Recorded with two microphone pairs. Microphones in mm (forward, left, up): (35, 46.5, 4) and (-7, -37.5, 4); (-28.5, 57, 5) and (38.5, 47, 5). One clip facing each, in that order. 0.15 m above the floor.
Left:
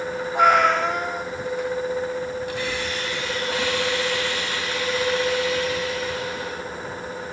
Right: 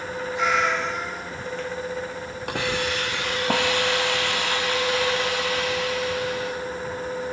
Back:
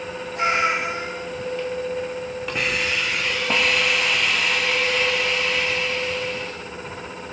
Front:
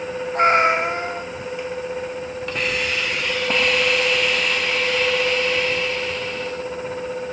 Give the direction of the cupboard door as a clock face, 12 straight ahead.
I don't hear a cupboard door.